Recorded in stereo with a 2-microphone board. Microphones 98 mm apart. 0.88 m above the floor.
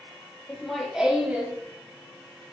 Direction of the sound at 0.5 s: 5° left (ahead or behind).